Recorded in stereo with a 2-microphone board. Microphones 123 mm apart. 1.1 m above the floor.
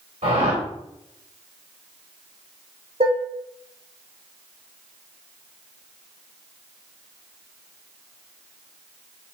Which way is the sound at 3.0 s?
55° right (ahead or behind).